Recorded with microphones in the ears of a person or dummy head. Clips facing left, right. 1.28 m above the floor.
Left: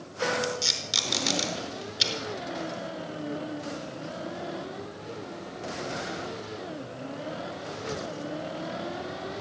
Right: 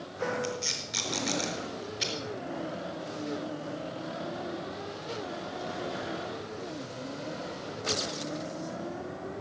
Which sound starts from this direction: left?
Tape being pulled, at 0.4 s.